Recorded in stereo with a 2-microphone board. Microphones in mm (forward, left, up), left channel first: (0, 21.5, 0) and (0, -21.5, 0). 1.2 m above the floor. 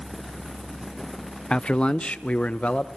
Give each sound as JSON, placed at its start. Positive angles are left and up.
{"t": 1.5, "sound": "a man speaking", "side_deg": 20, "distance_m": 0.5}